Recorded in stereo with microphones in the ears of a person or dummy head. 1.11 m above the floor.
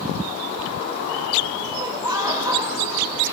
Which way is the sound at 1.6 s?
15° right (ahead or behind).